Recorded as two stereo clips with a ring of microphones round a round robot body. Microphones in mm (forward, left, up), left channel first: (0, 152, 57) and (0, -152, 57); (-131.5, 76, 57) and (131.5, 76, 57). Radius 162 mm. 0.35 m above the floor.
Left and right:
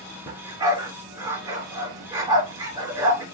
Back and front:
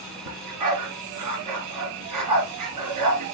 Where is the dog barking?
10° right, 2.5 m.